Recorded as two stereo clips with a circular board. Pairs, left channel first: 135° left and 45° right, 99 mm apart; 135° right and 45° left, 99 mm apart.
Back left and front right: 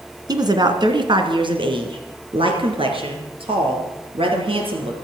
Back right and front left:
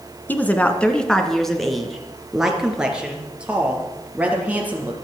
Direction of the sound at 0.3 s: 70° right.